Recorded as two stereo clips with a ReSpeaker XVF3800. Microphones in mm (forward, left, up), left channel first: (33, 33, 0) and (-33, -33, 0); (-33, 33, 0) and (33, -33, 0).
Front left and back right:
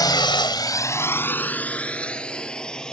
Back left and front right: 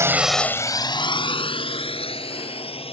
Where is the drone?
10° left; by 2.9 s 130° left.